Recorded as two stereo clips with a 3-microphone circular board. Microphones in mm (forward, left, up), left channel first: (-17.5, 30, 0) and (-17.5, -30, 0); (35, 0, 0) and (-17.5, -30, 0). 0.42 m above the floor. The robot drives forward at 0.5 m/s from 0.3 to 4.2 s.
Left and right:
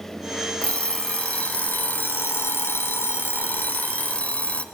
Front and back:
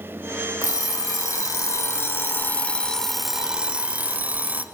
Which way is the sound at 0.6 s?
20° left.